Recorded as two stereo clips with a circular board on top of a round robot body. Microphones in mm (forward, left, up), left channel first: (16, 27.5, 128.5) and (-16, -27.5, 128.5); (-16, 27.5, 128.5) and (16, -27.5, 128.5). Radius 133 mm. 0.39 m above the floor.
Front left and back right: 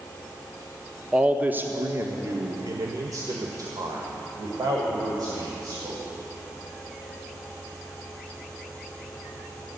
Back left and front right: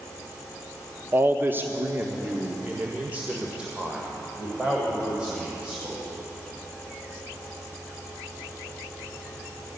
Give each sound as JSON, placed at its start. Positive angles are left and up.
{"t": 1.1, "sound": "a man speaking", "azimuth_deg": -55, "distance_m": 0.9}